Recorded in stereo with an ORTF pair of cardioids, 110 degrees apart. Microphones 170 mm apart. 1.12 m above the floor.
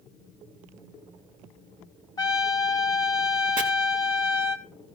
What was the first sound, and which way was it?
A trumpet, 20° left.